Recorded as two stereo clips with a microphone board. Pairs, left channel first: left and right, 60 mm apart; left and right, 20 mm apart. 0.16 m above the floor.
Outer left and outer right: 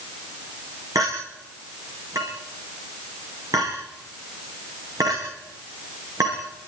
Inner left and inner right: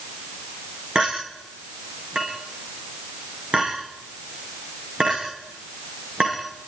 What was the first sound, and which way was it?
A clink, 65° right (ahead or behind).